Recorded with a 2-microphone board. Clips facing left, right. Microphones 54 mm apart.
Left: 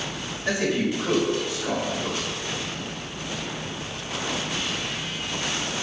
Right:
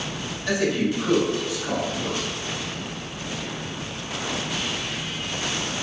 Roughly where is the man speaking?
Left.